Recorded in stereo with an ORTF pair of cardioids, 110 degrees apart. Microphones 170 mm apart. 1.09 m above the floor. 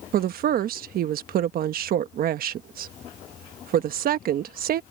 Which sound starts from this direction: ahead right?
A woman speaking, at 0.1 s.